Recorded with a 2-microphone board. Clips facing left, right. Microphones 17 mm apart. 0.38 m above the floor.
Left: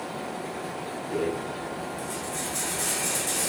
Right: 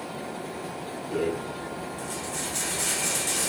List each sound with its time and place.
1.1 s a rattle: 25° right (ahead or behind), 0.7 m